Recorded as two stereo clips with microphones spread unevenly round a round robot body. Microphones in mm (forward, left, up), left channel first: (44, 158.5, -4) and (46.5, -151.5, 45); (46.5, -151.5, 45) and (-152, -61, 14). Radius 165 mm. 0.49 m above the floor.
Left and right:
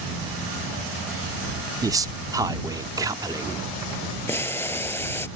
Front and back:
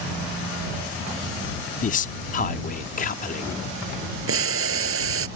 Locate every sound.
1.8 s a man speaking: 5° right
4.3 s boiling: 175° left